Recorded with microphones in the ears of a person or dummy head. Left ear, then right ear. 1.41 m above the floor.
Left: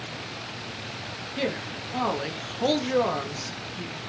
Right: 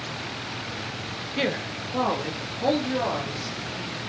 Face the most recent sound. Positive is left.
turn(degrees=75)  # may be behind; listen again after turning